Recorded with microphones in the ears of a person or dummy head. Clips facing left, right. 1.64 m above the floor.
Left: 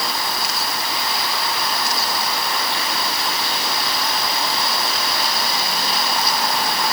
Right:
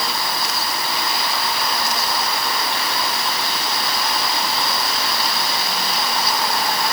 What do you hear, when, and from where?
Only background noise.